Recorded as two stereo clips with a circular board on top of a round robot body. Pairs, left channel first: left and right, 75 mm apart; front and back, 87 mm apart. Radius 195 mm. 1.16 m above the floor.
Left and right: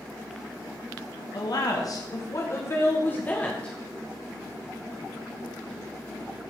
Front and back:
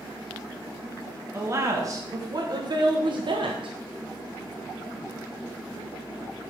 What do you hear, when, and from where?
1.3 s a woman speaking: 120° left, 2 m; by 3.8 s 170° left, 1.4 m